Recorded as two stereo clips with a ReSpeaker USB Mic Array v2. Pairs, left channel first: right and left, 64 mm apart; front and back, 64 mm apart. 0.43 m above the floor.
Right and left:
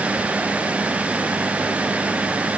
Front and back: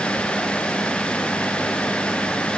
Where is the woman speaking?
No woman speaking in this recording.